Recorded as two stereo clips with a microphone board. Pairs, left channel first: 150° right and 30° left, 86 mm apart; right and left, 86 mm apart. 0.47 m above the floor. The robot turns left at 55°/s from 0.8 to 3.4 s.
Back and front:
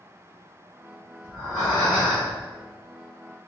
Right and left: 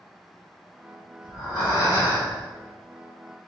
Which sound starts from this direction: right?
Breathing, at 1.2 s.